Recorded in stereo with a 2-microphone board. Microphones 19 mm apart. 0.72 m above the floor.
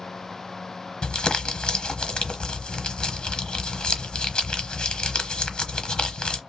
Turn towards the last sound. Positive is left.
turn(degrees=45)  # may be behind; listen again after turning